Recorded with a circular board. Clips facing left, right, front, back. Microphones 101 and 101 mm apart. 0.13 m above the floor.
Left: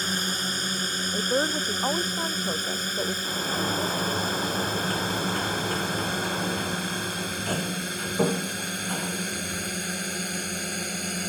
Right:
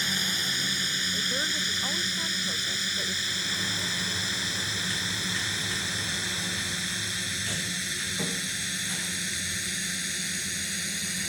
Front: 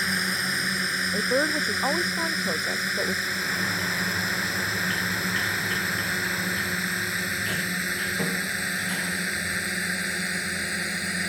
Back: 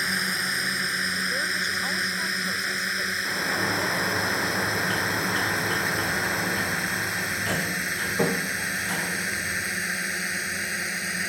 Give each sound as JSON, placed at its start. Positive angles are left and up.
{"t": 0.0, "sound": "a drone", "azimuth_deg": 90}
{"t": 1.1, "sound": "a woman speaking", "azimuth_deg": 50}
{"t": 3.2, "sound": "a sliding door", "azimuth_deg": 125}